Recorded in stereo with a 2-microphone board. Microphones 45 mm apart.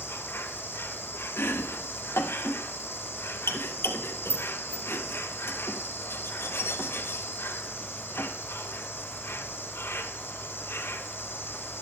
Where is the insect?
65° left (ahead or behind), 1.8 m.